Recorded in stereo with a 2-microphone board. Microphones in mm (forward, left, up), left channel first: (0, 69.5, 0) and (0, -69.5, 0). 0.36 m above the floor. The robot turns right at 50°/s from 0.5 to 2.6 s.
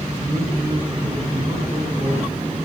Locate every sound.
0.2 s a man speaking: 165° right, 3 m; by 2.3 s 75° right, 3 m